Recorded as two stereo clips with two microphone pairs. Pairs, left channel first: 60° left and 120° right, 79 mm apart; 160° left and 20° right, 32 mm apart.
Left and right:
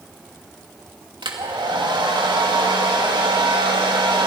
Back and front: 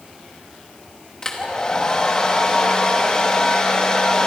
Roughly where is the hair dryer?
Behind right.